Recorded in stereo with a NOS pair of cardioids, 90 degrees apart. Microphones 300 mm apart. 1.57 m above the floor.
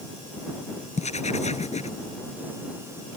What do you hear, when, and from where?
1.0 s writing: 20° left